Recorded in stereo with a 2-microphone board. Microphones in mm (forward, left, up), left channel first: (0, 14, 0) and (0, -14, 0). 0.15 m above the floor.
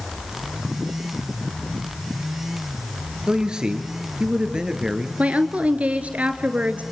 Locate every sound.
3.3 s a man speaking: 30° right (ahead or behind), 3 m
5.2 s a woman speaking: 55° right (ahead or behind), 1.9 m